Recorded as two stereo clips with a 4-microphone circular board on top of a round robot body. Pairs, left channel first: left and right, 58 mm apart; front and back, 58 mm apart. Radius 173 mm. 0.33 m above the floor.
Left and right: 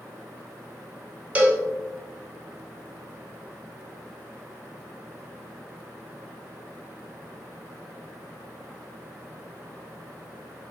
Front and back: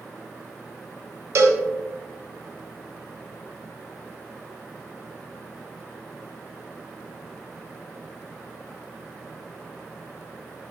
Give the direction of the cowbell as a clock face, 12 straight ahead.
5 o'clock.